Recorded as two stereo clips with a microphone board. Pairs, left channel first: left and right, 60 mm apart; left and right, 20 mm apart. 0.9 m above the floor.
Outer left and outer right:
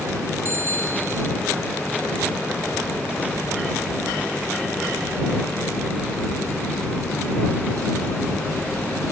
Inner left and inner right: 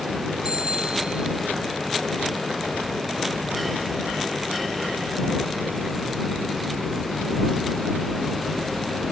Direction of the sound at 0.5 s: 45° right (ahead or behind).